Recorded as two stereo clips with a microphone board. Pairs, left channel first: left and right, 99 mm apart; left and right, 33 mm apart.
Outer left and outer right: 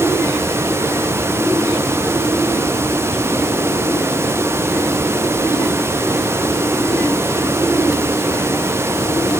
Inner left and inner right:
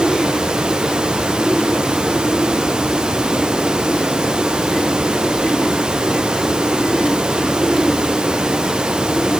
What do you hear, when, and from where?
Only background noise.